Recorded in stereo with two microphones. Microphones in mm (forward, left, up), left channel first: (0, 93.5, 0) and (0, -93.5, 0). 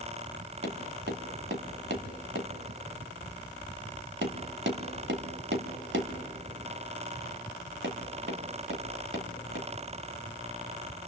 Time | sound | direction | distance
0.6 | tapping | 85° right | 1.1 m